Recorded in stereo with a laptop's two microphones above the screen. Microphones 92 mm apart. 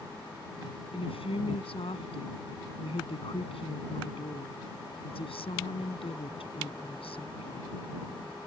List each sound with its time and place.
0.9 s a woman speaking: 85° left